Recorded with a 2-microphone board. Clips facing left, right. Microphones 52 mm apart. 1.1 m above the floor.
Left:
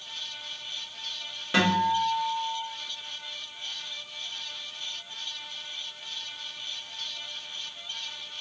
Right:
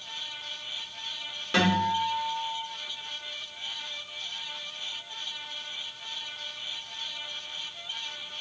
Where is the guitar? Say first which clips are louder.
Left 1 dB; 5° left (ahead or behind), 1.6 m.